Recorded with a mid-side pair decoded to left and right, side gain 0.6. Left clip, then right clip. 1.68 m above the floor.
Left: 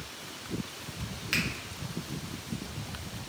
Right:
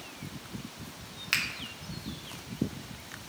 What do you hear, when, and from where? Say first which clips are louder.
1.3 s a finger snap: right 1 dB; 25° right, 0.9 m